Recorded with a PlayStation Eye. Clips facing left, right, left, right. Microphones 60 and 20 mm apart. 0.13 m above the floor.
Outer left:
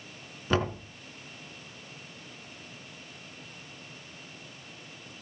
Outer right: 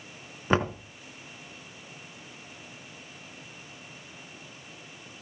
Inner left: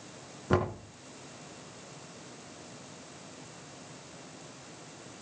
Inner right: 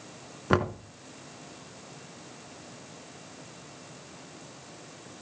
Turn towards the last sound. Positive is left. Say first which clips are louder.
# outer right 2 dB, inner right 3 dB
turn(degrees=-25)  # may be behind; listen again after turning